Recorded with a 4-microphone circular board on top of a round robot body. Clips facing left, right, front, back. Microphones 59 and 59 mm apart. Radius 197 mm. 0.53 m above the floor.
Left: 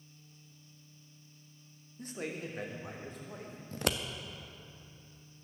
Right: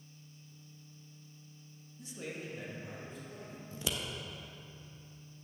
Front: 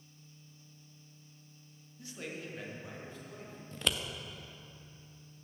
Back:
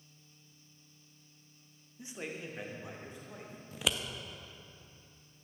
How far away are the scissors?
About 1.0 m.